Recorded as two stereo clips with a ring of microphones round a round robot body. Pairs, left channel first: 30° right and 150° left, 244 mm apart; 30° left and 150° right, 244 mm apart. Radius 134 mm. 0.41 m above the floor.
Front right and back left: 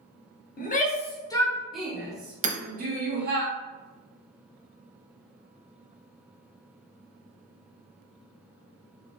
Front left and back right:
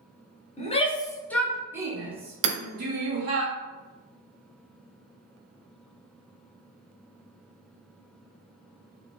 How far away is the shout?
About 1.0 m.